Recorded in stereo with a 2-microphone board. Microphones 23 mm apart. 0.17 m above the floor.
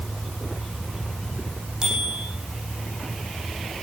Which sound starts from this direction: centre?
A bicycle bell, at 1.8 s.